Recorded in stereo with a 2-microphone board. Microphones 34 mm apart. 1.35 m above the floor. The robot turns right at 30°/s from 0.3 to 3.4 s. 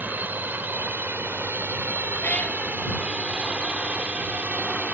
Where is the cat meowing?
55° left (ahead or behind).